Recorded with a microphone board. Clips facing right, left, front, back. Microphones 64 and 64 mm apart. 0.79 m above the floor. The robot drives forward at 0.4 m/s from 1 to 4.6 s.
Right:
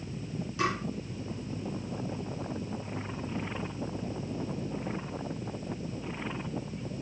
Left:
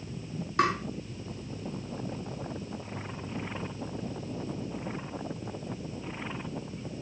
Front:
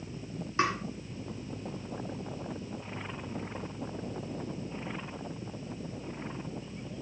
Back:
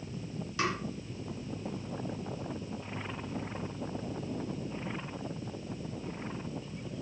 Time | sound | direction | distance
0.6 | tapping | 55° left | 4 m